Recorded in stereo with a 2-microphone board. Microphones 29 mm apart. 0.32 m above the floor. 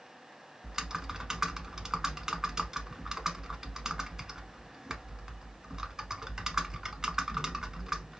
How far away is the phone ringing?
No phone ringing in this recording.